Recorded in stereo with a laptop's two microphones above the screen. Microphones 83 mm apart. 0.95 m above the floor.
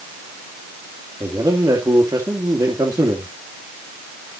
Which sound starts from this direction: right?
A man speaking, at 1.2 s.